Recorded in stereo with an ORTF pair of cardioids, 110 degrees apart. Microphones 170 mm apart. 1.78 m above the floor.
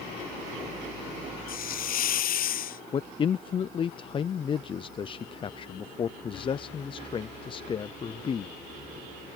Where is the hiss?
55° left.